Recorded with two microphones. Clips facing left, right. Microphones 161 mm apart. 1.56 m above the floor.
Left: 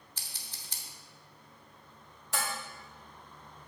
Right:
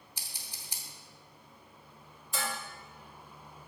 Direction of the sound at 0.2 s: 10° right (ahead or behind).